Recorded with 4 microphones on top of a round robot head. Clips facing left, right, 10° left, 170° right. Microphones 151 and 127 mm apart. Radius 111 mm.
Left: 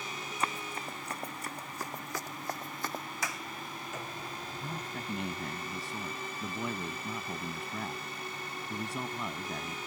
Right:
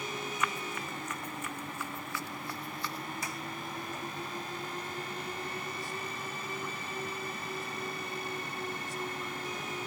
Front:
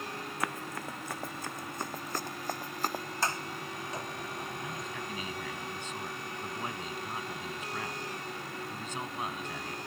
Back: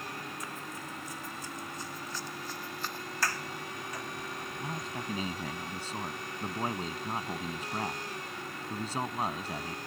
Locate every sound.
0.4 s running footsteps: 30° left; by 3.0 s 50° left
3.2 s a sliding door: 75° left
4.6 s a man speaking: 135° left